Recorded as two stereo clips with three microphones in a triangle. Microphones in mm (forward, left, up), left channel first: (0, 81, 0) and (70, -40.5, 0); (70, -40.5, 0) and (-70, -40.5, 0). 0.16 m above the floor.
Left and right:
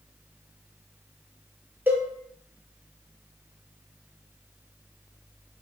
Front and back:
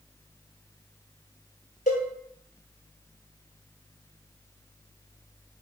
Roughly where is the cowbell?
Ahead.